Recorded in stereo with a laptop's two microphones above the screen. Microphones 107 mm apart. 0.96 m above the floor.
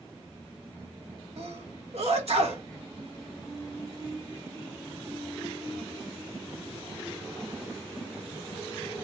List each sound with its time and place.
1.4 s a sneeze: 75° right (ahead or behind), 1.5 m